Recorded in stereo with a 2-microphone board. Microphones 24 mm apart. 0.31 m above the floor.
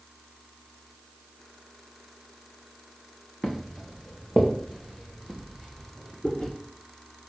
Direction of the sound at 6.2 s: 40° left (ahead or behind).